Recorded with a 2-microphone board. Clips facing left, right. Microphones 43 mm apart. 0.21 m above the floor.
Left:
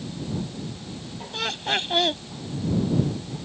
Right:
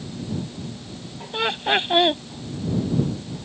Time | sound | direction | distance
1.3 | laughter | 25° right (ahead or behind) | ?